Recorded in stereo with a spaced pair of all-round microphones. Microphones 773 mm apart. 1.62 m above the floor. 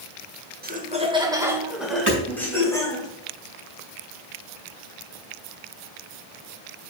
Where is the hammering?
10° right (ahead or behind), 5 m.